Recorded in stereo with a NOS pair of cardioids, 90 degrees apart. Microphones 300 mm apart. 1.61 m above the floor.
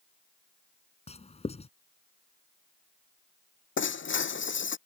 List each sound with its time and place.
1.1 s writing: 20° left
3.8 s breaking glass: 40° left